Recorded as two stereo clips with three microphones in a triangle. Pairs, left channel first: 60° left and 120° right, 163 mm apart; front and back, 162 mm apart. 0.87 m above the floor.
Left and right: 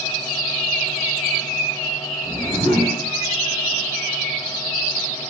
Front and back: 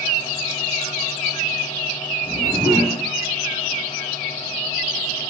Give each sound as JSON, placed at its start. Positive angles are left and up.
{"t": 2.2, "sound": "a whoosh", "azimuth_deg": -5, "distance_m": 1.0}